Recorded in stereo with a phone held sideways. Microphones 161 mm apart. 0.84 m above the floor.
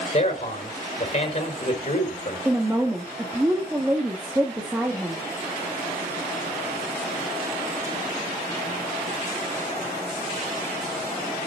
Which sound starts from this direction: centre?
A woman speaking, at 2.5 s.